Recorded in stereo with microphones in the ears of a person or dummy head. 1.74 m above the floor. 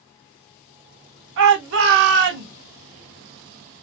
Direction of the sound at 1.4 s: 60° right (ahead or behind).